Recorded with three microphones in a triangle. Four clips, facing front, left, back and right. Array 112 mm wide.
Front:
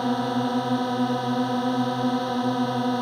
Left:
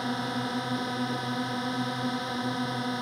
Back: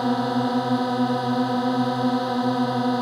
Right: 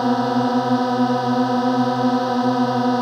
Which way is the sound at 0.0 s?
95° right.